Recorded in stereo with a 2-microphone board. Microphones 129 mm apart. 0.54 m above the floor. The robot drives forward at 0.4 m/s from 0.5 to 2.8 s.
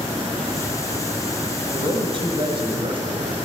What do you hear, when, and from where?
1.7 s a man speaking: 40° right (ahead or behind), 4 m; by 3.4 s 45° right (ahead or behind), 3.5 m